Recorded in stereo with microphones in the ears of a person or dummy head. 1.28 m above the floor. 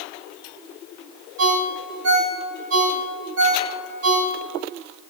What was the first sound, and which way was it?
A ringtone, 80° right.